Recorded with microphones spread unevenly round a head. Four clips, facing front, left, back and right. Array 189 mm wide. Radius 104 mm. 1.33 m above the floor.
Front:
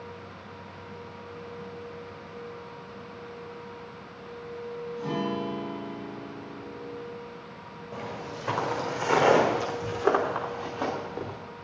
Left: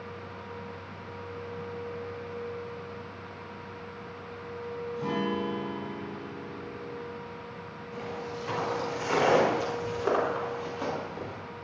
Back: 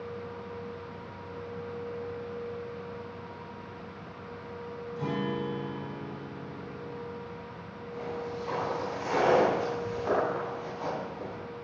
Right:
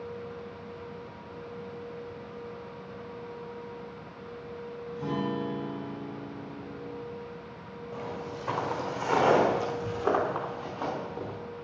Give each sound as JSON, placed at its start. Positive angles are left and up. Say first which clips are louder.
{"t": 5.0, "sound": "a guitar", "louder": "left 1 dB, front 1 dB", "azimuth_deg": 175, "distance_m": 6.5}
{"t": 7.9, "sound": "footsteps", "louder": "even, back 1 dB", "azimuth_deg": -20, "distance_m": 4.5}